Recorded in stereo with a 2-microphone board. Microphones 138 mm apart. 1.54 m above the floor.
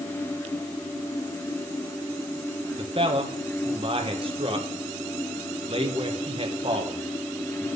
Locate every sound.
2.8 s a man speaking: 40° right (ahead or behind), 1.8 m